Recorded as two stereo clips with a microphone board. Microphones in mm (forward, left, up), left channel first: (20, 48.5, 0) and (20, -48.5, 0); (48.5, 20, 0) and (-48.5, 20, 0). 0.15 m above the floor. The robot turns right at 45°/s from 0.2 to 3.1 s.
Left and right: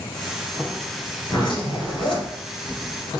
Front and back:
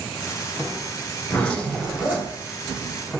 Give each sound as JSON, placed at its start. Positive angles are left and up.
{"t": 1.2, "sound": "a zipper", "azimuth_deg": 70, "distance_m": 1.9}